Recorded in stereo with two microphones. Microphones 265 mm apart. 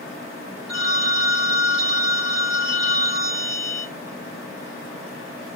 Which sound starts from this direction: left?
A phone ringing, at 0.7 s.